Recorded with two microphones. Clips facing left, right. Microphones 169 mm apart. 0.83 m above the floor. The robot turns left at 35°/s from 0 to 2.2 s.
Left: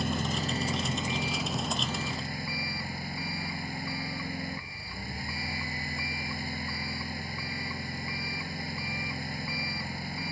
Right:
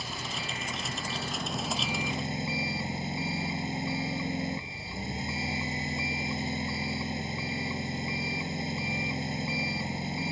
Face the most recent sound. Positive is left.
turn(degrees=-20)